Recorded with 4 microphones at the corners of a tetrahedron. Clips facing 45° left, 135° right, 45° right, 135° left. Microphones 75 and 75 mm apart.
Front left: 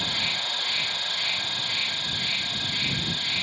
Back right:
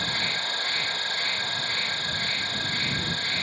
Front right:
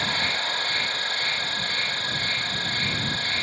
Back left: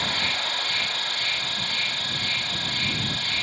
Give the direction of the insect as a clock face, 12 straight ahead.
3 o'clock.